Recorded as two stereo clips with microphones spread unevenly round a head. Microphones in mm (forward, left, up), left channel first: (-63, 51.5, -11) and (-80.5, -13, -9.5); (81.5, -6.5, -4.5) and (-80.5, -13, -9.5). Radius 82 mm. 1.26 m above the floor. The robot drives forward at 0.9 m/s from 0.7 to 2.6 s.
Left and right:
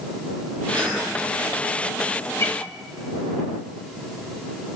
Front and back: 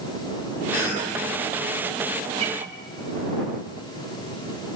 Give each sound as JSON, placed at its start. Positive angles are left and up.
{"t": 0.7, "sound": "a cough", "azimuth_deg": -30, "distance_m": 7.5}
{"t": 2.4, "sound": "a guitar", "azimuth_deg": 125, "distance_m": 2.0}